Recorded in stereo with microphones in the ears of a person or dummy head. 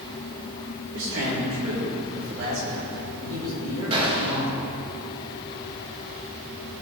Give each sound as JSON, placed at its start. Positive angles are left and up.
{"t": 0.9, "sound": "a man speaking", "side_deg": -65, "distance_m": 4.0}
{"t": 3.9, "sound": "a gunshot", "side_deg": -30, "distance_m": 2.5}